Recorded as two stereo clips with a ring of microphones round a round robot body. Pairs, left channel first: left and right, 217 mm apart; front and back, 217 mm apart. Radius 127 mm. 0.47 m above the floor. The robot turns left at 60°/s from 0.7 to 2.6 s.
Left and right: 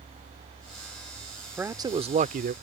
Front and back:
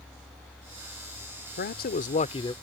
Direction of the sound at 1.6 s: 10° right.